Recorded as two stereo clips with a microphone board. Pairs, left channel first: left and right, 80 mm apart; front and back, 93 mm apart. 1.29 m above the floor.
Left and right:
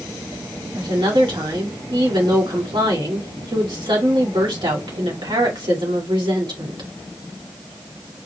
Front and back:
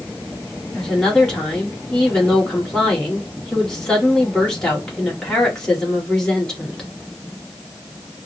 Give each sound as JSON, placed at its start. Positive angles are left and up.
{"t": 0.8, "sound": "a woman speaking", "azimuth_deg": -85, "distance_m": 2.5}